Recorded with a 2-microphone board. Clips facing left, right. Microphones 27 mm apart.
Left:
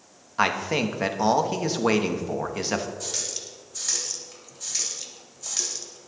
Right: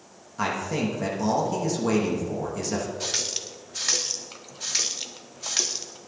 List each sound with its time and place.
0.4 s a man speaking: 40° left (ahead or behind), 1.2 m
3.0 s a running tap: 35° right (ahead or behind), 0.9 m